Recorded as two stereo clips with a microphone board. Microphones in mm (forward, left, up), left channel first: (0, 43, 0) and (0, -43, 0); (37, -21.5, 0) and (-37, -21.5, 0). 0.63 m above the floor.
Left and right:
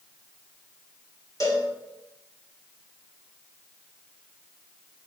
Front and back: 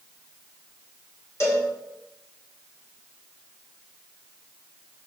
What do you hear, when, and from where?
1.4 s a cowbell: 45° left, 1.9 m